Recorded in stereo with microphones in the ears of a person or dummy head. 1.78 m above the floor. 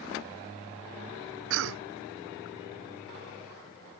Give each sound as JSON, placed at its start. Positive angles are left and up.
{"t": 1.5, "sound": "a cough", "side_deg": -65}